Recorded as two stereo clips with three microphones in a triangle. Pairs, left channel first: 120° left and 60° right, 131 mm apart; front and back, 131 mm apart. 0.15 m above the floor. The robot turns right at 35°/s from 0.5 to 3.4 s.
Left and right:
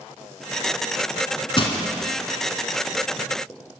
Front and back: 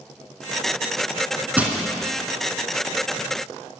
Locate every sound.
1.6 s crushing: 110° left, 0.8 m; by 1.8 s 115° left, 0.8 m